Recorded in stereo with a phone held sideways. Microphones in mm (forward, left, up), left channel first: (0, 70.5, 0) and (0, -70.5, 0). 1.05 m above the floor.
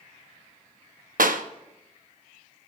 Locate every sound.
1.2 s a clap: 75° right (ahead or behind), 0.9 m